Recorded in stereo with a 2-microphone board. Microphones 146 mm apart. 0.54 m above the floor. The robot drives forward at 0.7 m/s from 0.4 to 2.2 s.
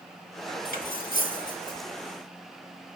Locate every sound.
0.7 s cutlery clinking: 85° left, 2.5 m; by 1.8 s 65° left (ahead or behind), 2.5 m